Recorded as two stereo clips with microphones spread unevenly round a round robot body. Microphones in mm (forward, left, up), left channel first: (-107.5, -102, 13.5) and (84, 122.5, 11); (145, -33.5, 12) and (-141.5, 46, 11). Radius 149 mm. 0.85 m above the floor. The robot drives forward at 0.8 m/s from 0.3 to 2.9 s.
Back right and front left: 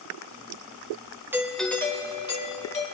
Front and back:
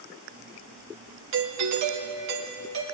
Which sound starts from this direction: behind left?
A doorbell, at 1.3 s.